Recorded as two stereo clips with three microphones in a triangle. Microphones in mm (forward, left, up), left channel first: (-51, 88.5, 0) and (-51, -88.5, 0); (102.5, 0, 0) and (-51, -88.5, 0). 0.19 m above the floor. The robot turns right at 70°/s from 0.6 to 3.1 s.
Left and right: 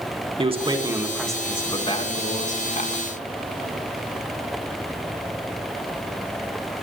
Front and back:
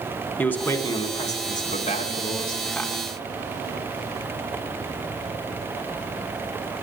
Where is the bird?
I don't hear a bird.